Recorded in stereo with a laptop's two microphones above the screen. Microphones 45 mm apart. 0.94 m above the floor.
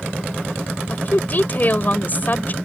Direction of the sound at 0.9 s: 40° left (ahead or behind).